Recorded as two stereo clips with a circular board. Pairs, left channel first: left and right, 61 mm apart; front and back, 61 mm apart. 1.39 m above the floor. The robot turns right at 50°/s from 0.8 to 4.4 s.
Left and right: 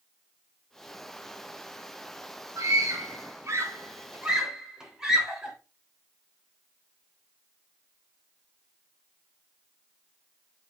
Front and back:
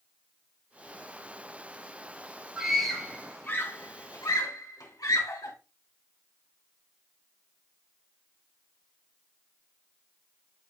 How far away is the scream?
About 3 m.